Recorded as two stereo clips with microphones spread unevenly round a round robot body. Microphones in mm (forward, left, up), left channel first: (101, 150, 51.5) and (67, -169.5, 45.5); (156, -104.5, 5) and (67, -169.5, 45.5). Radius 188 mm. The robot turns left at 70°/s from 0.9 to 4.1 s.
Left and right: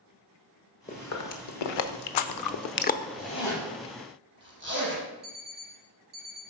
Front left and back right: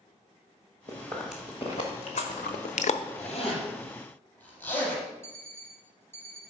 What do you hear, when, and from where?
0.9 s chewing: 155° left, 0.7 m; by 3.0 s 10° left, 0.7 m
3.2 s a zipper: 25° left, 5 m; by 5.0 s 40° right, 5 m
5.2 s an alarm clock: 35° right, 2.5 m